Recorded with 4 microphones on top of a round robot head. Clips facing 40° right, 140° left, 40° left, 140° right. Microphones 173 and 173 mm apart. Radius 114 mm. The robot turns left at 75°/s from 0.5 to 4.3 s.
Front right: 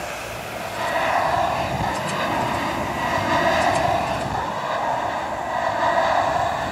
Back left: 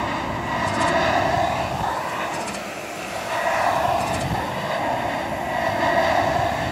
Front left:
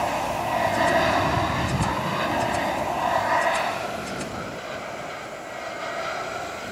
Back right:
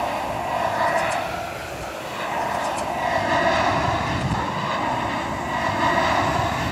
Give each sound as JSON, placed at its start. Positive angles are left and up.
{"t": 0.0, "sound": "an aircraft", "azimuth_deg": 130}